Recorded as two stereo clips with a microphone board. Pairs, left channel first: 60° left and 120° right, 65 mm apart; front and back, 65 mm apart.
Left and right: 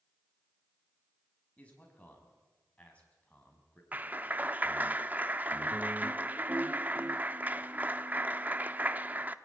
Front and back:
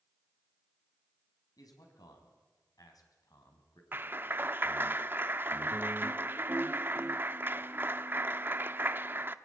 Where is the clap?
165° right, 0.7 m.